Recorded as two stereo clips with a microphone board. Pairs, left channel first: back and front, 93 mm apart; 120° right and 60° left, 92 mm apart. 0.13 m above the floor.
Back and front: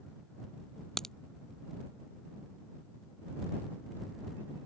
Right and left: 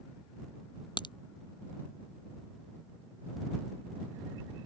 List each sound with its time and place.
1.0 s a crack: 95° right